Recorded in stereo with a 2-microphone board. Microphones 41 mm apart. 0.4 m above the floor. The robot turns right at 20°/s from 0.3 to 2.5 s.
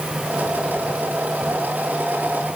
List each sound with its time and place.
Only background noise.